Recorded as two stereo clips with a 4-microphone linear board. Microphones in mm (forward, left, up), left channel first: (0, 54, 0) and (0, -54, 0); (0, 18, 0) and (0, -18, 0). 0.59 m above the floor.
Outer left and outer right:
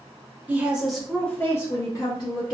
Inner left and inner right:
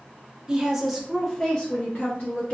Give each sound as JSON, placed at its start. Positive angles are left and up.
{"t": 0.5, "sound": "a woman speaking", "side_deg": -15, "distance_m": 0.8}